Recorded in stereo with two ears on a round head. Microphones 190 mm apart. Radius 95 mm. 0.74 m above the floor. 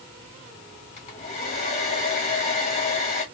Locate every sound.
1.0 s a hair dryer: 30° left (ahead or behind), 1.6 m